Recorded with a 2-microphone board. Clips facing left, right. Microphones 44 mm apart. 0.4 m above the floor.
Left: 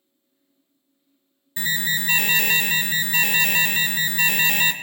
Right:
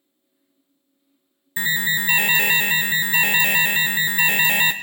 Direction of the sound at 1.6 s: 20° right (ahead or behind).